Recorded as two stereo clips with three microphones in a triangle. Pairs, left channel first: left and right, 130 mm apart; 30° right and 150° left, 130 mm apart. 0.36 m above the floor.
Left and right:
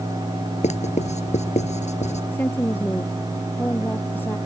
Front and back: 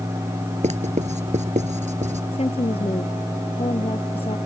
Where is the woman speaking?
15° left.